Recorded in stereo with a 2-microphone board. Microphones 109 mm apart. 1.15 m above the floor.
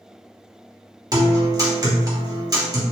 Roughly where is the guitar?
Right.